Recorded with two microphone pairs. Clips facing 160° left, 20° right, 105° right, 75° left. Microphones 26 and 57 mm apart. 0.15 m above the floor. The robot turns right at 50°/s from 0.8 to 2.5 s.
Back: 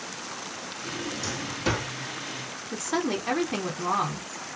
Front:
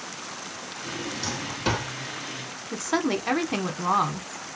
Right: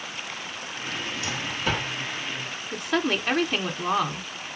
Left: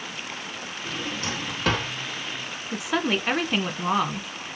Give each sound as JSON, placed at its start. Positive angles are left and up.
{"t": 0.9, "sound": "a drawer", "azimuth_deg": 15, "distance_m": 2.5}
{"t": 2.7, "sound": "a woman speaking", "azimuth_deg": -5, "distance_m": 1.1}